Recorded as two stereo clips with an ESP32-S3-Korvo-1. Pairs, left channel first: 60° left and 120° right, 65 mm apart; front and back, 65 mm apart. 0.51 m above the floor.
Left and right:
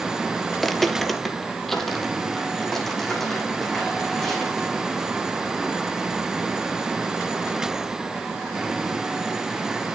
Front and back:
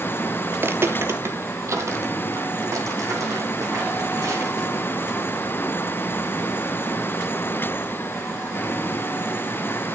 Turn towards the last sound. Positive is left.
turn(degrees=145)